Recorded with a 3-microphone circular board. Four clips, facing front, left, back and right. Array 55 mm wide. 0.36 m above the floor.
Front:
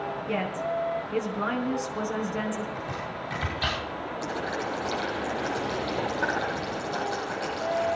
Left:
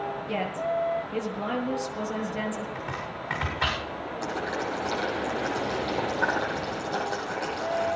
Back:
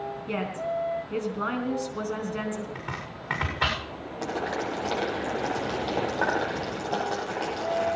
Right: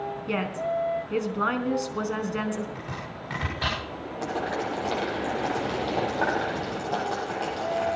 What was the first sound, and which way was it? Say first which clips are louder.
A woman speaking: right 2 dB, even; 95° right.